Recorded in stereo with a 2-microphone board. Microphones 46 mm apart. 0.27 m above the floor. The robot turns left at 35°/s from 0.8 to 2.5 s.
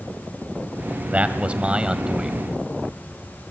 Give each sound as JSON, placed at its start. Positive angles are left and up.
{"t": 1.1, "sound": "a man speaking", "azimuth_deg": -115, "distance_m": 1.7}